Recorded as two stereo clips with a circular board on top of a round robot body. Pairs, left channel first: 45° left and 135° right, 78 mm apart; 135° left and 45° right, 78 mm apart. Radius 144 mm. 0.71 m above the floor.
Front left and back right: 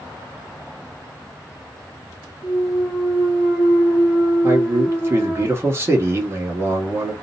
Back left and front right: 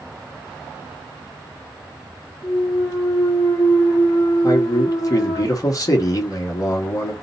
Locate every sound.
2.4 s a clunk: 155° left, 1.5 m
4.4 s a man speaking: 170° left, 1.2 m